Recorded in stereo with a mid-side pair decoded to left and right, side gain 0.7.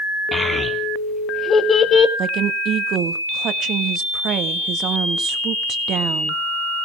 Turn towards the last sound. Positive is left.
turn(degrees=-50)